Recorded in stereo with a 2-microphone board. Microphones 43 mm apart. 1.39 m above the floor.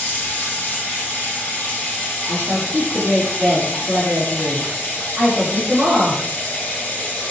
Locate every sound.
0.0 s running water: 45° left (ahead or behind), 0.9 m
2.3 s a woman speaking: 30° right (ahead or behind), 1.3 m